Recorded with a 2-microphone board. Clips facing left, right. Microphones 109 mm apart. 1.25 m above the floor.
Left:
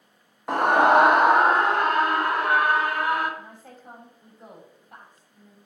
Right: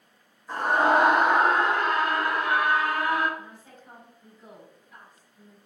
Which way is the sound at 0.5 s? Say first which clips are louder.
Left 4 dB; 75° left (ahead or behind).